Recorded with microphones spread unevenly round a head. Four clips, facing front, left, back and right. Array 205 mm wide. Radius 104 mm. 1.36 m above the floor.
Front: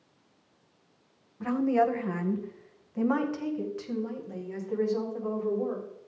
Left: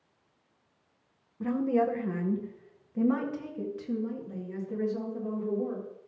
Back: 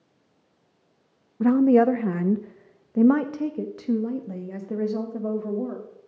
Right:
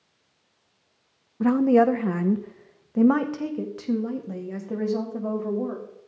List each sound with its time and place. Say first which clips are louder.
1.4 s a woman speaking: right 9 dB, back 8 dB; 145° right, 0.7 m